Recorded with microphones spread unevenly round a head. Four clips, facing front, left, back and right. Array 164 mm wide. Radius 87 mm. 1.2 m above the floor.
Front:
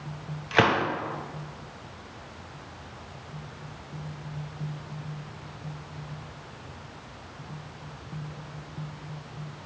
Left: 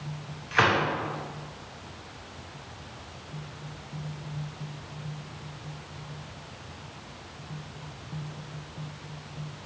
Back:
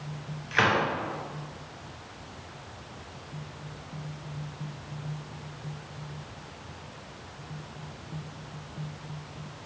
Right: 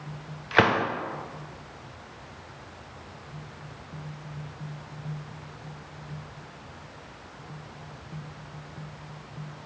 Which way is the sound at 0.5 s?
55° right.